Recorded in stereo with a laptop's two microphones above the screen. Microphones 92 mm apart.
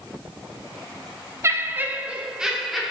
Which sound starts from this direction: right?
Laughter, at 1.4 s.